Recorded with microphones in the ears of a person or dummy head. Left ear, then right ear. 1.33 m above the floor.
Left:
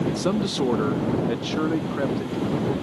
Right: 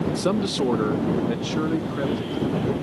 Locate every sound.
0.2 s a man speaking: 15° right (ahead or behind); by 2.7 s 15° left (ahead or behind)